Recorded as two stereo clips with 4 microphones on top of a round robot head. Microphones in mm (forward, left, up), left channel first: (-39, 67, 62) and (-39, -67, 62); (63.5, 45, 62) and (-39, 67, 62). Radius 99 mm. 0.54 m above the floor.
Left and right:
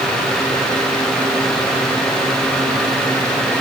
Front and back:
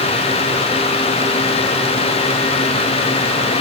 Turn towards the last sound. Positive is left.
No sound to turn to.